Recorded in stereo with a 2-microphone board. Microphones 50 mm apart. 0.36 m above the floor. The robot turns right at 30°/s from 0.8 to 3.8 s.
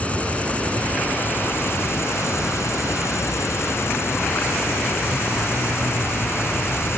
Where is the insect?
25° left; by 7.0 s 115° left.